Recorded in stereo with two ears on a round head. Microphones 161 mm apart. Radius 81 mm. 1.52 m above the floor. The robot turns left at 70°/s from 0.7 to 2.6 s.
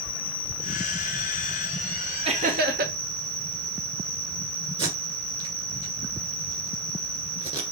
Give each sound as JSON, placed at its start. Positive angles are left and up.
{"t": 0.0, "sound": "an insect", "azimuth_deg": 80, "distance_m": 1.3}
{"t": 2.2, "sound": "laughter", "side_deg": -30, "distance_m": 1.1}
{"t": 4.8, "sound": "tape being pulled", "side_deg": -30, "distance_m": 1.7}